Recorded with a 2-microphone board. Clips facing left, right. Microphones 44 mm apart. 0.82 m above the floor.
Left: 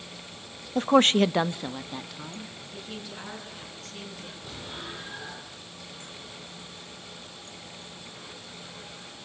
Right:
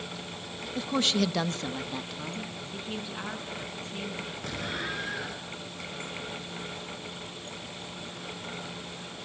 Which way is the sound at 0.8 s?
45° left (ahead or behind).